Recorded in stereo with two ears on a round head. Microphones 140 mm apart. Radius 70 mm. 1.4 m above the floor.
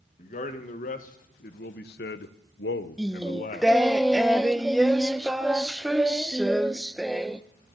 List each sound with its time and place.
0.2 s a man speaking: 50° left (ahead or behind), 1.7 m; by 3.7 s 45° left (ahead or behind), 0.7 m
3.0 s singing: centre (ahead or behind), 0.5 m